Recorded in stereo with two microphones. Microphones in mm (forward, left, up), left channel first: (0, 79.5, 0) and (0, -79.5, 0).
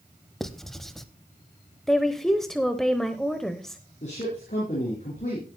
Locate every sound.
0.4 s writing: centre (ahead or behind), 0.8 m
1.9 s a woman speaking: 5° left (ahead or behind), 0.9 m
4.0 s a man speaking: 45° left (ahead or behind), 4.5 m